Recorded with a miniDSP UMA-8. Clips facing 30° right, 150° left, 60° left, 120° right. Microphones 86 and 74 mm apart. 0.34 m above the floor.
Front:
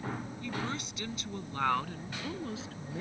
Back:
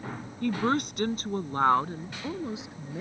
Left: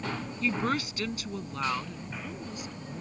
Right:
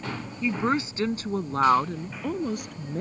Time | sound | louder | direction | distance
0.4 | a woman speaking | back 13 dB, right 4 dB | 165° left | ?